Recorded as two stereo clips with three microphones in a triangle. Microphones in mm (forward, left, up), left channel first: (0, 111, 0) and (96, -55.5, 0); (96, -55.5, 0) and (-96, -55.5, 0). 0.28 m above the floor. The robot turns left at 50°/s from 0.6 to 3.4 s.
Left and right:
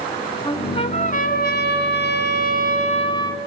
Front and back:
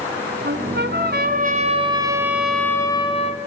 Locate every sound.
0.5 s a trumpet: 175° right, 2.5 m; by 3.4 s 45° left, 2.5 m